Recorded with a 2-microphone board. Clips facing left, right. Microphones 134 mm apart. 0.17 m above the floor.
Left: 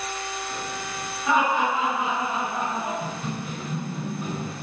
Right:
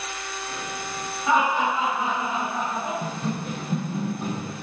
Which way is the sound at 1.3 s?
20° right (ahead or behind).